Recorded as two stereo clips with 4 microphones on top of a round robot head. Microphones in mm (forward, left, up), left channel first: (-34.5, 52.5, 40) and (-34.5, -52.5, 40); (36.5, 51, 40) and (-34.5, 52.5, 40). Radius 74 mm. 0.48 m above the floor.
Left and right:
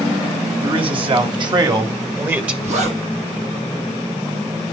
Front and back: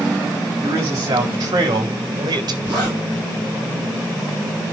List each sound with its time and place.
0.6 s a man speaking: 120° right, 3.5 m; by 2.5 s 170° right, 1.8 m
2.6 s a zipper: 110° right, 7 m